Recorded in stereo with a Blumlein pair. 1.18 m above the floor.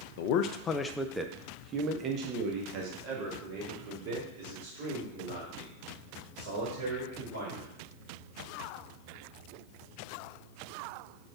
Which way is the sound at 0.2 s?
50° left.